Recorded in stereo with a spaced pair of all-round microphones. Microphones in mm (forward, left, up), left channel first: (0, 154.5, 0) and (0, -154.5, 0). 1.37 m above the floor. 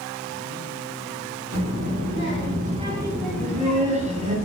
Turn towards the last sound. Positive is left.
turn(degrees=-20)  # may be behind; listen again after turning